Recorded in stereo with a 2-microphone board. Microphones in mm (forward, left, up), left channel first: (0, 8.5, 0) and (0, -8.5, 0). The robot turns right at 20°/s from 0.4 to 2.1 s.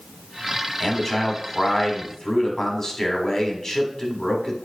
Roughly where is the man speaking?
Left.